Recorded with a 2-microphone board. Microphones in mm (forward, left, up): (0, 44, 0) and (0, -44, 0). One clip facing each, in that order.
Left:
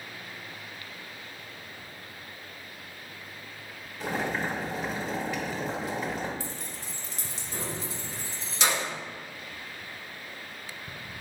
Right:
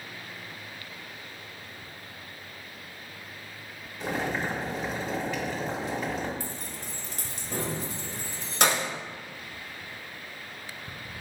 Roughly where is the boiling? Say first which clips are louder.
Even; centre.